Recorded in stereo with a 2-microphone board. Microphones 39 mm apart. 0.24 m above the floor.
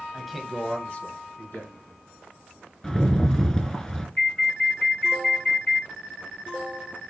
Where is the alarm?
40° left (ahead or behind), 3 m.